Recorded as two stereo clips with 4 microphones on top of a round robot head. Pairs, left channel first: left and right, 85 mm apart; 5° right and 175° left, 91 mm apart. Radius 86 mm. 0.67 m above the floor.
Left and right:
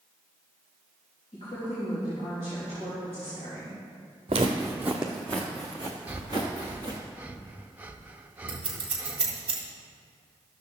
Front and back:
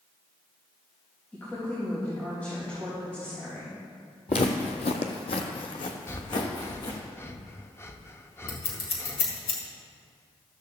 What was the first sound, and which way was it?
A woman speaking, 70° left.